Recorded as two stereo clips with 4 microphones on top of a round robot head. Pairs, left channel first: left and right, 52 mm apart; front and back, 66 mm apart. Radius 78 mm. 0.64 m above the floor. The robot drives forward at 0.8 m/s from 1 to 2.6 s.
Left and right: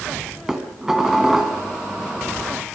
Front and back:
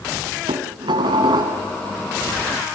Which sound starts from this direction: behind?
Dishes clattering, at 0.5 s.